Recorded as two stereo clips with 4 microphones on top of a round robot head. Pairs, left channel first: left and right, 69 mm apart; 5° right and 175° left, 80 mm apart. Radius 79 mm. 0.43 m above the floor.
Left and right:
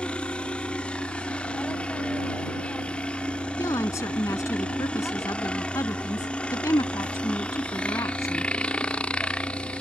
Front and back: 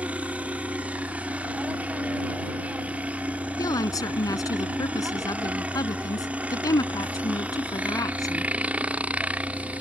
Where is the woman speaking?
40° left.